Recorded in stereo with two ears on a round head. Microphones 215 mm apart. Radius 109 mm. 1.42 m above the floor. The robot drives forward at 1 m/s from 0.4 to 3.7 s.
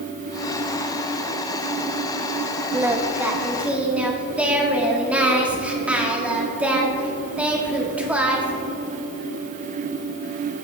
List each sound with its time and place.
2.7 s singing: 10° right (ahead or behind), 0.8 m; by 8.6 s 5° right (ahead or behind), 1.4 m